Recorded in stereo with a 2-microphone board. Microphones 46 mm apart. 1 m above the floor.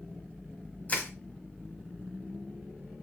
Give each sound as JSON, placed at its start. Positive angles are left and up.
{"t": 0.9, "sound": "crushing", "side_deg": 35, "distance_m": 1.3}